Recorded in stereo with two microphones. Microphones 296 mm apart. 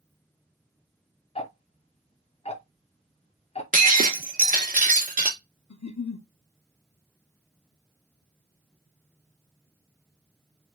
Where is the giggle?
65° left (ahead or behind), 0.6 m.